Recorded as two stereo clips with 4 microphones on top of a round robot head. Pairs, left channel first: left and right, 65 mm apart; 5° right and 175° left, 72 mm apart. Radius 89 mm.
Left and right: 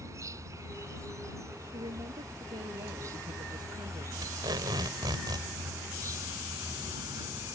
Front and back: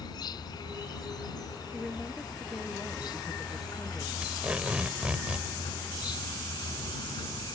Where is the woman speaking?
95° right.